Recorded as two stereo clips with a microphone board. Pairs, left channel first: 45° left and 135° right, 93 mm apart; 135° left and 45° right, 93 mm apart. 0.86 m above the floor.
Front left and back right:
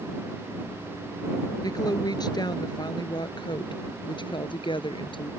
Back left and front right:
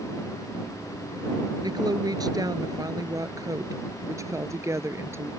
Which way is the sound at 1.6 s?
Straight ahead.